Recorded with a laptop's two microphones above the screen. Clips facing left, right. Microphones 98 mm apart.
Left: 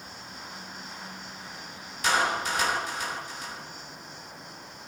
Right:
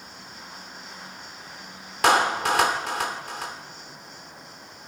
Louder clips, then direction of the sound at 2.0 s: Right 6 dB; 80° right.